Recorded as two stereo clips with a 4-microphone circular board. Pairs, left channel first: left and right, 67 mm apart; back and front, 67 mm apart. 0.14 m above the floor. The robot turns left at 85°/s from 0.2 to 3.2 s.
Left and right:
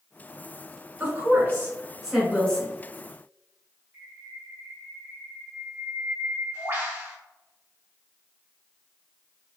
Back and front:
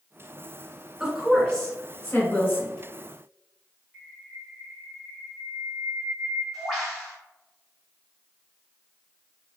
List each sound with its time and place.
1.0 s a woman speaking: 70° right, 1.5 m; by 2.7 s 145° left, 1.5 m
3.9 s a bird: 85° right, 1.8 m